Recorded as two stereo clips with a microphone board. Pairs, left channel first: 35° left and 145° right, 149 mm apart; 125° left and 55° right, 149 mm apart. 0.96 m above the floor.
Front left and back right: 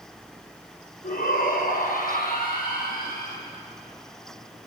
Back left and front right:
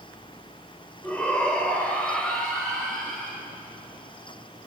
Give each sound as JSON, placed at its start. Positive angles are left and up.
{"t": 1.0, "sound": "a shout", "azimuth_deg": 45, "distance_m": 5.0}